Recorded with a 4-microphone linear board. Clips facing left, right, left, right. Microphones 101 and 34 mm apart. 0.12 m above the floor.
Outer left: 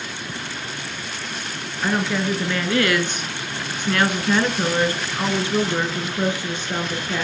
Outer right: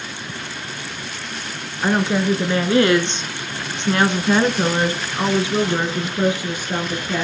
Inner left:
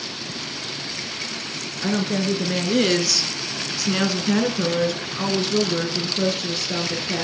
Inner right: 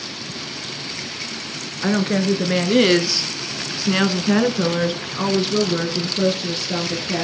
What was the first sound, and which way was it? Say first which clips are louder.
A woman speaking: outer right 4 dB, inner right 4 dB; 25° right (ahead or behind).